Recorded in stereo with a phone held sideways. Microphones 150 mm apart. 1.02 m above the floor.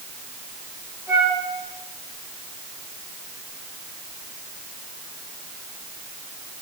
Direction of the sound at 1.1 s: 10° right (ahead or behind).